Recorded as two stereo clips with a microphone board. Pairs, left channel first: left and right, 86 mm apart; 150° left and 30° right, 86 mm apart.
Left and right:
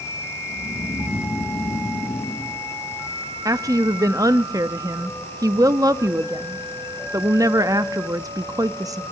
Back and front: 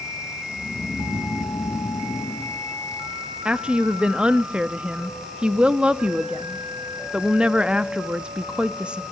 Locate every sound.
0.5 s snoring: 90° left, 4.5 m
3.5 s a woman speaking: 105° right, 0.6 m